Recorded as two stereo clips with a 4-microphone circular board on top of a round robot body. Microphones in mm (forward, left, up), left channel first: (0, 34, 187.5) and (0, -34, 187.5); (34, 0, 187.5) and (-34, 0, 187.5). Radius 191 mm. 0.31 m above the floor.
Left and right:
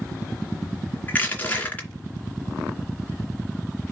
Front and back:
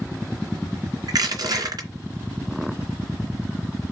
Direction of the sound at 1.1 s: 155° left.